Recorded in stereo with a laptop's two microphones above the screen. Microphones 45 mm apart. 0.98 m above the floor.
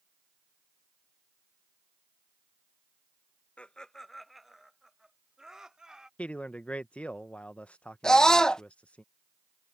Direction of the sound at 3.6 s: 30° left (ahead or behind).